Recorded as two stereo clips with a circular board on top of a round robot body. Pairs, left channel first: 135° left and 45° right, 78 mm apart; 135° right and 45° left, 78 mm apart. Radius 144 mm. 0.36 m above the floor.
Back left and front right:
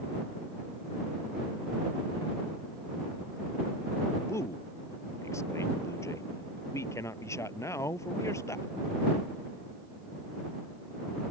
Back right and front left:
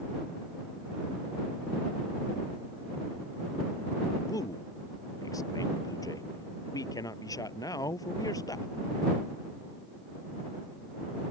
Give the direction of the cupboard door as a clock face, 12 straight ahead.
I don't hear a cupboard door.